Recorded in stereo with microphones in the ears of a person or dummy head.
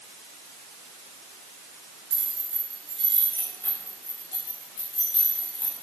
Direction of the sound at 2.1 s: 25° right (ahead or behind).